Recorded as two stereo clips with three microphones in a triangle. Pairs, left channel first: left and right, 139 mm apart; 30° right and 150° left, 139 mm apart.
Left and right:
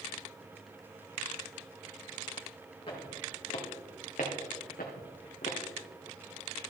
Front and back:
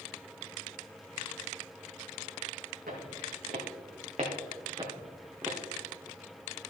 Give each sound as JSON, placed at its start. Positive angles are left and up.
{"t": 2.9, "sound": "footsteps", "azimuth_deg": 140, "distance_m": 4.0}